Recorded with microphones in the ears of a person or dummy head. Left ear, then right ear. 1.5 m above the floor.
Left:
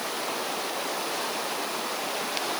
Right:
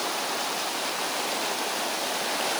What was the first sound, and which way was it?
Only background noise.